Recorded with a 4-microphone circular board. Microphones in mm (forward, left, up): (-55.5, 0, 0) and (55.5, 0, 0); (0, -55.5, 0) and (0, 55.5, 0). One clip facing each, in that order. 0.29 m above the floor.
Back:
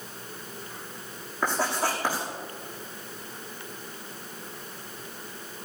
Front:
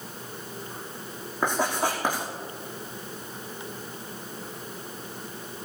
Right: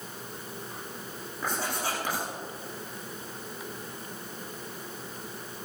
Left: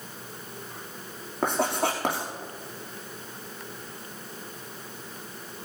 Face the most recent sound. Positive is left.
turn(degrees=75)